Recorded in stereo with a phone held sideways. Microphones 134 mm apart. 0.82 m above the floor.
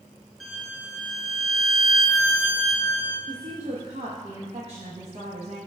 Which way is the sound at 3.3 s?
45° right (ahead or behind).